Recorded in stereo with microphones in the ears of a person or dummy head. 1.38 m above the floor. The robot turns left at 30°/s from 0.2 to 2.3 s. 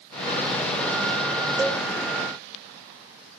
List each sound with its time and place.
1.6 s a cowbell: 15° right (ahead or behind), 0.8 m; by 1.8 s 5° right (ahead or behind), 0.8 m